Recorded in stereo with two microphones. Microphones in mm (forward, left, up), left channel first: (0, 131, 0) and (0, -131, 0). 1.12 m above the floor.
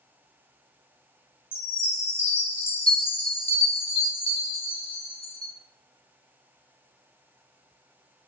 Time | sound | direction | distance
1.5 | a chime | 20° left (ahead or behind) | 0.8 m